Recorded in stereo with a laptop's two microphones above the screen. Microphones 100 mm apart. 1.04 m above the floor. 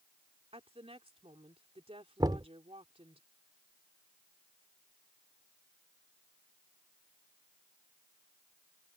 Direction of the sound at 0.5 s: 75° right (ahead or behind).